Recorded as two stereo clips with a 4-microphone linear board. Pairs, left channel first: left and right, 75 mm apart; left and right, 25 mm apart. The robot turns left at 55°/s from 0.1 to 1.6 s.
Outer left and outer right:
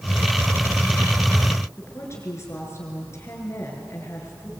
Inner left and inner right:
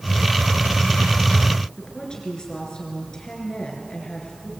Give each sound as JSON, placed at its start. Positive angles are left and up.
{"t": 1.8, "sound": "a woman speaking", "side_deg": 35, "distance_m": 6.5}